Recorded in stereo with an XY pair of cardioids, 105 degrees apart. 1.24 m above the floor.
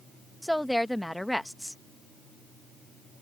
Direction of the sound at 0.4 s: 5° left.